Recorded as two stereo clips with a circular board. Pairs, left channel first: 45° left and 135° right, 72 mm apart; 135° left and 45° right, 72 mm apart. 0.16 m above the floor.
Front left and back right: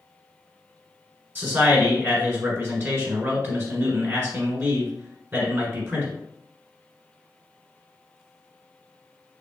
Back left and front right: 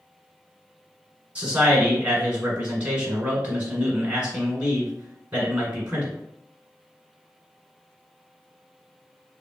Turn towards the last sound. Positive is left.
turn(degrees=-105)